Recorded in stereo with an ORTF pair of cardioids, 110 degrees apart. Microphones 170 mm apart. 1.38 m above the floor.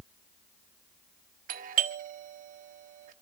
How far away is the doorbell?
About 1.2 m.